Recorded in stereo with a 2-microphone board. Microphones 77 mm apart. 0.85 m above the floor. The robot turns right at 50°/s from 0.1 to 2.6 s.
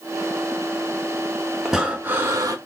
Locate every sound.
1.6 s breathing: 175° right, 0.9 m; by 2.5 s 130° right, 0.9 m